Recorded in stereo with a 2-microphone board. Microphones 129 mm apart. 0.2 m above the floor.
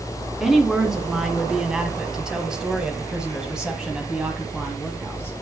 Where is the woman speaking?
5° right (ahead or behind), 1.9 m.